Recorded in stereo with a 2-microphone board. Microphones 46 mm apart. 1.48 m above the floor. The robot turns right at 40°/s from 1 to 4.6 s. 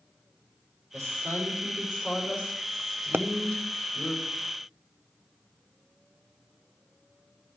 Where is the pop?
55° right (ahead or behind), 0.5 m.